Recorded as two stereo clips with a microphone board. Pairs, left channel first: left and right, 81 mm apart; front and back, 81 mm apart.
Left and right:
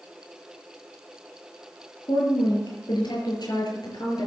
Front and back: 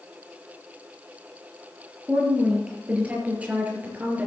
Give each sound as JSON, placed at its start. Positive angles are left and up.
{"t": 2.1, "sound": "a woman speaking", "azimuth_deg": 105, "distance_m": 6.0}